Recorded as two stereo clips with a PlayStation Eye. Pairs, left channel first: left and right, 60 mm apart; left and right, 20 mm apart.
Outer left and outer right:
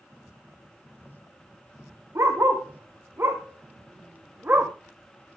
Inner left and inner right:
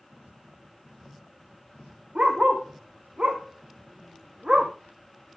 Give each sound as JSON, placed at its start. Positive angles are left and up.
{"t": 2.1, "sound": "a dog barking", "side_deg": -55, "distance_m": 4.0}